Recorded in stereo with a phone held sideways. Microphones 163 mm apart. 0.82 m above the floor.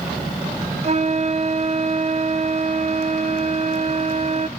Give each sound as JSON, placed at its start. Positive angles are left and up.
{"t": 0.8, "sound": "a flute", "side_deg": -45, "distance_m": 0.6}